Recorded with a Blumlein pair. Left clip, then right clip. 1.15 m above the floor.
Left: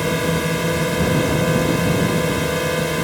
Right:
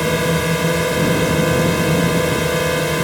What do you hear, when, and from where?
0.0 s a drone: 10° right